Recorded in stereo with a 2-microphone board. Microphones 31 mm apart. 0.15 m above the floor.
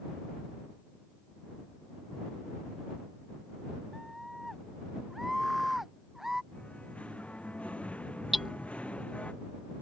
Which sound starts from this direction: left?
Singing, at 6.5 s.